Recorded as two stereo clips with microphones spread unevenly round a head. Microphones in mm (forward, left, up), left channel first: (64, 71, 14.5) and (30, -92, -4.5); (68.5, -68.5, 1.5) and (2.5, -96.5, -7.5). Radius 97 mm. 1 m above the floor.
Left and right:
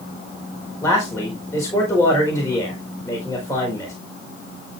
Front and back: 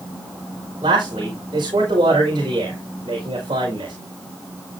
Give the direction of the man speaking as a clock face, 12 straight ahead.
7 o'clock.